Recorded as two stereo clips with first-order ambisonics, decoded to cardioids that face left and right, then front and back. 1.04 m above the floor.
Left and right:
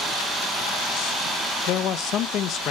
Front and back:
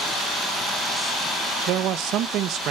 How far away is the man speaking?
About 0.7 m.